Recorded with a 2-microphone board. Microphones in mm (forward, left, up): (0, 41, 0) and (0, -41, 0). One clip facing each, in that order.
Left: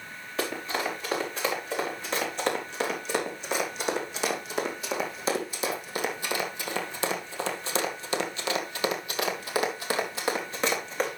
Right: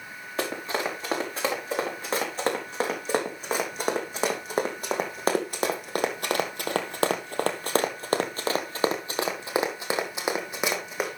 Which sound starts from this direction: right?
Running footsteps, at 0.4 s.